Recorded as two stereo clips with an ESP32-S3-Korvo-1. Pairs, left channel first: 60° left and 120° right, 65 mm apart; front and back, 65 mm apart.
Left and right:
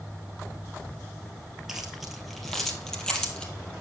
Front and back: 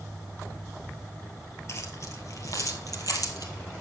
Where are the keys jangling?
40° right, 2 m; by 3.5 s 15° right, 2.5 m.